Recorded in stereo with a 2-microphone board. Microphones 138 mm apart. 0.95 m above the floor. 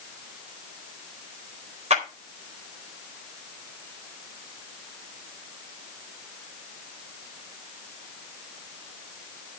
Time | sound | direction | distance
1.9 | a clap | 55° right (ahead or behind) | 4 m